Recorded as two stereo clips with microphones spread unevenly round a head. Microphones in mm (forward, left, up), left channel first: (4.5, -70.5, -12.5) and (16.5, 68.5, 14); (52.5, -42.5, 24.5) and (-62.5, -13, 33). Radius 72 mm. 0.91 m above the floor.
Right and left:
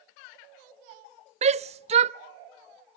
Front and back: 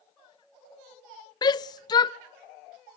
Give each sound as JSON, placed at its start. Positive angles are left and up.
{"t": 1.4, "sound": "a shout", "azimuth_deg": 40, "distance_m": 0.5}